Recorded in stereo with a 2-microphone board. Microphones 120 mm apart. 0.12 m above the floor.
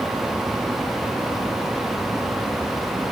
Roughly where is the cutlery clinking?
No cutlery clinking in this recording.